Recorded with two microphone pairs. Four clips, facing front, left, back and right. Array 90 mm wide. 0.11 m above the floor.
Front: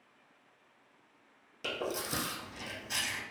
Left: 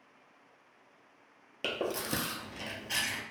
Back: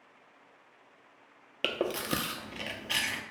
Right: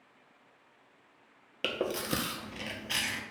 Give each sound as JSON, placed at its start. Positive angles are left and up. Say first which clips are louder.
{"t": 1.6, "sound": "chewing", "louder": "right 2 dB, back 5 dB", "azimuth_deg": -165, "distance_m": 0.6}